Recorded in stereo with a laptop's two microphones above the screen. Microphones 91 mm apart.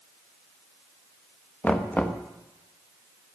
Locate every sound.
1.6 s knocking: 15° left (ahead or behind), 0.9 m